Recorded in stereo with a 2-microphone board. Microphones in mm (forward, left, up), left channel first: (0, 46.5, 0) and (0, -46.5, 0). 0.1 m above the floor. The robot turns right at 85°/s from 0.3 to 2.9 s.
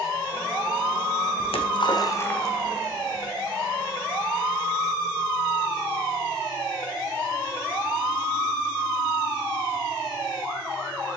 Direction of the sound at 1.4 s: 75° left (ahead or behind).